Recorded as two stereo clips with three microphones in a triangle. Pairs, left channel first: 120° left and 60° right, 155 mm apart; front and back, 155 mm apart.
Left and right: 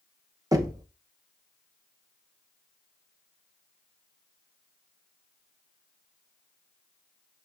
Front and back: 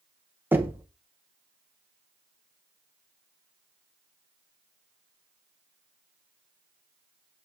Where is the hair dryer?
No hair dryer in this recording.